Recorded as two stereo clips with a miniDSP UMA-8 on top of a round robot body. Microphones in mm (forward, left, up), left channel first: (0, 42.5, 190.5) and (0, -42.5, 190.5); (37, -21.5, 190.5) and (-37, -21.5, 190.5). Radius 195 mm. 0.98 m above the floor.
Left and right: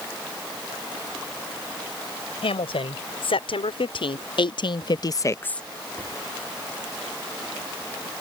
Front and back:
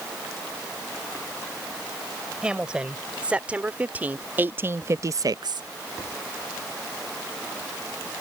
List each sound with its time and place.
2.4 s a woman speaking: 100° left; by 5.6 s 170° left